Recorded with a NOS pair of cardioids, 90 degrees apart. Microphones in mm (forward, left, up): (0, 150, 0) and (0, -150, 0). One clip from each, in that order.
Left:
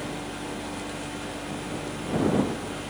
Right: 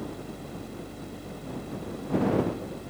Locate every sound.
0.0 s a fan: 20° left